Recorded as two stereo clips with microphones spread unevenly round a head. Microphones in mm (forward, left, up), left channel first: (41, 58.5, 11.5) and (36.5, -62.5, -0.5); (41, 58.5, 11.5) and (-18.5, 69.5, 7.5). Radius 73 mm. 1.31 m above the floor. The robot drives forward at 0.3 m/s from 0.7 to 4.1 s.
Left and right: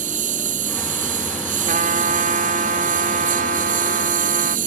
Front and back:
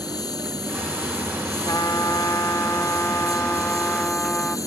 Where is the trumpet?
75° right; by 4.6 s 90° right.